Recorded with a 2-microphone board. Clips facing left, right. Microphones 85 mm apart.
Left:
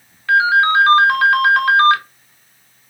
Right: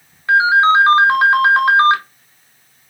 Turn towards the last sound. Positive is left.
turn(degrees=-20)  # may be behind; listen again after turning